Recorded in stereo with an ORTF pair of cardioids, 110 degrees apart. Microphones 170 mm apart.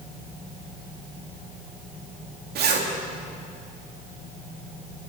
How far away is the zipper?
About 2.5 m.